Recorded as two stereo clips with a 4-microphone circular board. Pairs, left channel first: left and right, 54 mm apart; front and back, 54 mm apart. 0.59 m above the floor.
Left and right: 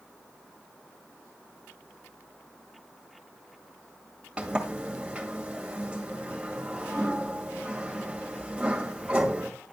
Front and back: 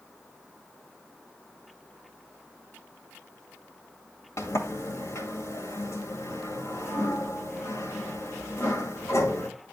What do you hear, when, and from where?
4.4 s a sliding door: 20° right, 2 m